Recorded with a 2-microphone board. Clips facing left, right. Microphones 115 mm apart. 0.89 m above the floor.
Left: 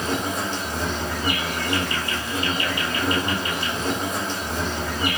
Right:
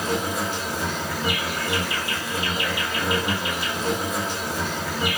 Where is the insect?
5° right (ahead or behind), 2 m.